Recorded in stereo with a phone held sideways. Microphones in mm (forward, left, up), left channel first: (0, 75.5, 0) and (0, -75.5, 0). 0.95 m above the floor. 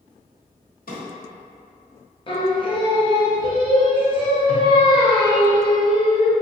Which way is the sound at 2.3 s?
35° left (ahead or behind).